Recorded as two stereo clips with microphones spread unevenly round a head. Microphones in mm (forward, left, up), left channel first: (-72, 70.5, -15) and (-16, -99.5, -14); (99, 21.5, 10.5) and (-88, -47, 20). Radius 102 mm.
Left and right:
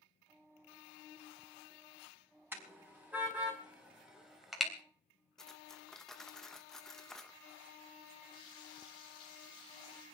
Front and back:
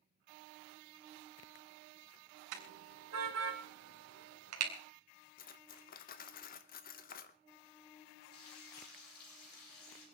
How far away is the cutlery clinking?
About 0.9 m.